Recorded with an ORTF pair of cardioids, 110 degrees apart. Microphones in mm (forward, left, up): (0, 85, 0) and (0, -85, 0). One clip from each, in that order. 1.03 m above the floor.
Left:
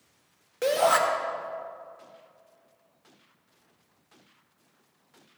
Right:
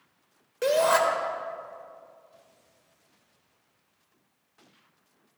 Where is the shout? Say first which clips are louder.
Even; 10° left, 1.2 m.